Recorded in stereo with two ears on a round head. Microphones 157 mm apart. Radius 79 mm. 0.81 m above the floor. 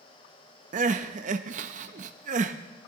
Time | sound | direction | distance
0.7 | crying | 45° right (ahead or behind) | 0.5 m